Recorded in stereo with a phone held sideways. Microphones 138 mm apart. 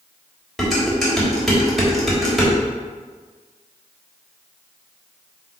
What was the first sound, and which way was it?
Dishes clattering, centre (ahead or behind).